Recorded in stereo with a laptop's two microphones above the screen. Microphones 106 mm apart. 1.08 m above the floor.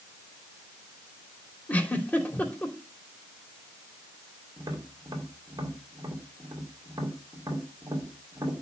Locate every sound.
1.7 s a giggle: 15° left (ahead or behind), 3 m
4.6 s tapping: 35° right (ahead or behind), 2 m